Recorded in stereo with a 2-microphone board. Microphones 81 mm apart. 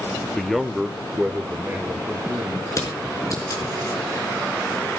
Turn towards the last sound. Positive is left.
turn(degrees=40)  # may be behind; listen again after turning